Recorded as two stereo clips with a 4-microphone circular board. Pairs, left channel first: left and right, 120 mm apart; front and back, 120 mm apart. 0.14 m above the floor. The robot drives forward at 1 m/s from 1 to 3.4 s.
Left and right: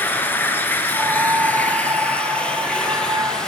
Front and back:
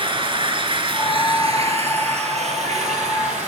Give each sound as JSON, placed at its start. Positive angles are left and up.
{"t": 0.0, "sound": "running water", "azimuth_deg": 160, "distance_m": 1.8}